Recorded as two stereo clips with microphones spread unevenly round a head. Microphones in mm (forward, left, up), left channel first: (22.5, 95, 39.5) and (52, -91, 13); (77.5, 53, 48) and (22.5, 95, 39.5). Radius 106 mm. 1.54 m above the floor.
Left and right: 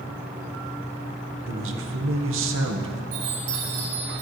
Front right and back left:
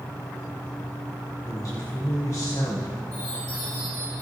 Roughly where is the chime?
Right.